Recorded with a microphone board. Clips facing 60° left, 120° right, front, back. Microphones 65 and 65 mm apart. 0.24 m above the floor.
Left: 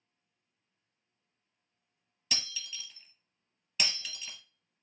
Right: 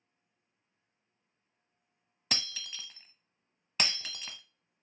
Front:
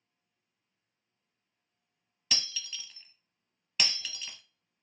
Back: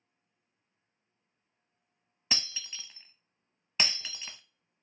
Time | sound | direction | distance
2.3 | breaking glass | 130° right | 0.6 m